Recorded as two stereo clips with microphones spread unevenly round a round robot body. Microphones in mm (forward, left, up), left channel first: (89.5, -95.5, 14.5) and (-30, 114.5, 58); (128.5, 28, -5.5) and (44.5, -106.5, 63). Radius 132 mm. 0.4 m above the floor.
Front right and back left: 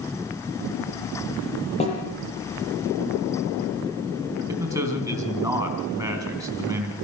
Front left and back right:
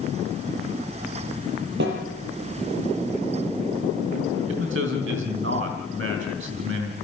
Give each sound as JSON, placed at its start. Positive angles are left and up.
{"t": 1.8, "sound": "a snare drum", "azimuth_deg": -125, "distance_m": 6.5}
{"t": 4.5, "sound": "a man speaking", "azimuth_deg": -160, "distance_m": 3.5}